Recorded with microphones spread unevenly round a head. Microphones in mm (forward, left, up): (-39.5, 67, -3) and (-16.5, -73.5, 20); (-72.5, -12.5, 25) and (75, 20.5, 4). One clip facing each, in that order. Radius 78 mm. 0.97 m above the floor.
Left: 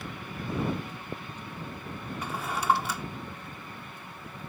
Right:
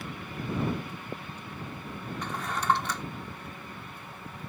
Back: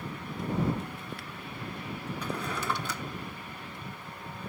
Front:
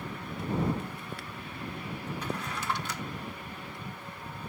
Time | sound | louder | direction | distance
2.2 | a drawer | left 1 dB, back 2 dB | straight behind | ?